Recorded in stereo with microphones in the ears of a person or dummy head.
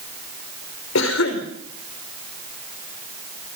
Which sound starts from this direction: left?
A cough, at 0.9 s.